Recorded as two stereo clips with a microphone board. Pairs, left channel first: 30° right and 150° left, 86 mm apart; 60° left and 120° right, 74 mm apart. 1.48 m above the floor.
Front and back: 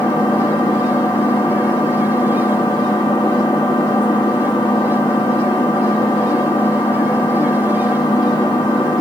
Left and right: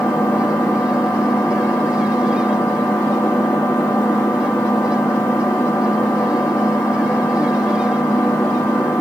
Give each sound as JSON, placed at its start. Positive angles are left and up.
{"t": 0.0, "sound": "an engine running", "azimuth_deg": 0, "distance_m": 2.5}